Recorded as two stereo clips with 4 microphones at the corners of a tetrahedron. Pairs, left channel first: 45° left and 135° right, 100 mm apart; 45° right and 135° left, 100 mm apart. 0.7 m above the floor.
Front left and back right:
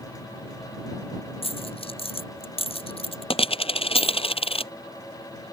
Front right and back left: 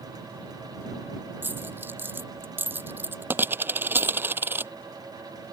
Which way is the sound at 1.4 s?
65° left.